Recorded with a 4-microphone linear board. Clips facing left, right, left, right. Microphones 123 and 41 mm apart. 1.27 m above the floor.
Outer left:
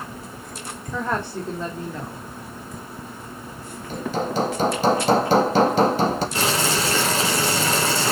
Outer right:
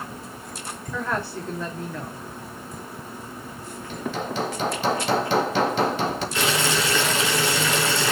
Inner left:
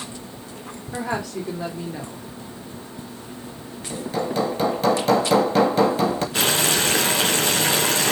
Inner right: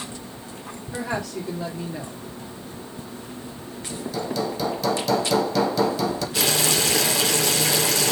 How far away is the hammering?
About 2 m.